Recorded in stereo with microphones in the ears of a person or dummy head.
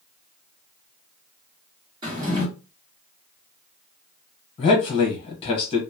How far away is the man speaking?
About 1.2 m.